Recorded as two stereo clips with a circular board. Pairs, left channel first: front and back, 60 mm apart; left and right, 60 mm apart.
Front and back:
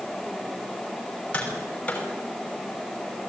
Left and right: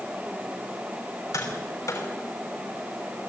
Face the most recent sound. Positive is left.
turn(degrees=70)